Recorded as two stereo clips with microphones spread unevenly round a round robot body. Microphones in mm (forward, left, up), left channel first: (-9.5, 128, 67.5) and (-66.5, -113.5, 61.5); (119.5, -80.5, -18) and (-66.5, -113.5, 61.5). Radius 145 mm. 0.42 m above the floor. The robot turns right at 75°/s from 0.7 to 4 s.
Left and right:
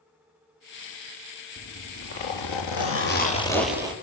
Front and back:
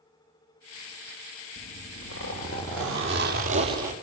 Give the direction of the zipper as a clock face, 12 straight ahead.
12 o'clock.